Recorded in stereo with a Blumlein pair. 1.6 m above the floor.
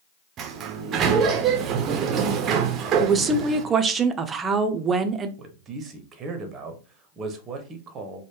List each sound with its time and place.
0.4 s a sliding door: 30° right, 0.6 m
3.0 s a woman speaking: 20° right, 0.5 m
5.4 s a man speaking: 25° right, 0.7 m